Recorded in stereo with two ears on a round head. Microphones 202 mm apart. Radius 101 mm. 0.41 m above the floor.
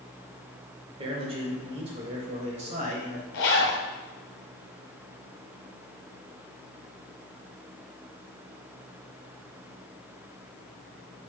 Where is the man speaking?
25° right (ahead or behind), 1.6 m; by 3.2 s 35° right (ahead or behind), 2.5 m.